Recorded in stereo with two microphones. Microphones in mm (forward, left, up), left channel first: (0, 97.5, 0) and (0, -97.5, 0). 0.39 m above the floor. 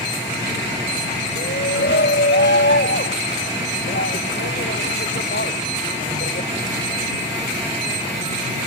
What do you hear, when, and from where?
1.4 s a shout: 60° left (ahead or behind)